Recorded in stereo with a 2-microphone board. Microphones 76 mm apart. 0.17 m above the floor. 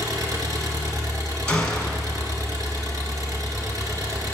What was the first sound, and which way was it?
An engine running, 55° right (ahead or behind).